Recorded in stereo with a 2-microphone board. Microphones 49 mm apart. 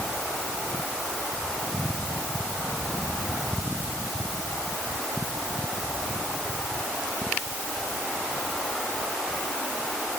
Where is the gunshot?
No gunshot in this recording.